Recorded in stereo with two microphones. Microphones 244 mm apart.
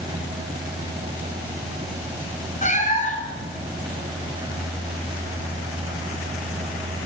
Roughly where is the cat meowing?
Left.